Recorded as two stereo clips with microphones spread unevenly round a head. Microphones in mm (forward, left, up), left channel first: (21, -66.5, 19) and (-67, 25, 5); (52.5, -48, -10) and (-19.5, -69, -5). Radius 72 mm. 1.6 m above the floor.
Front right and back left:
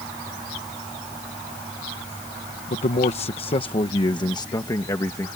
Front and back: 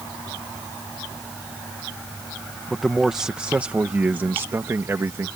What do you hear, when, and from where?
2.7 s a man speaking: 75° right; by 5.3 s 115° right